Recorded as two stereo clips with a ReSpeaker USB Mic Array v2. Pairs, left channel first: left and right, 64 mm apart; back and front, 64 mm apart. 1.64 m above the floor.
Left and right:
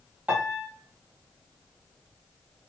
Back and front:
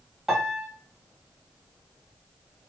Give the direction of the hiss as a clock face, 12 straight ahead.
No hiss in this recording.